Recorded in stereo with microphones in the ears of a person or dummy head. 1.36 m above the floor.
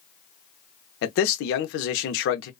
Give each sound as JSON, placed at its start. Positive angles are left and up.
{"t": 1.0, "sound": "a man speaking", "side_deg": 70, "distance_m": 0.6}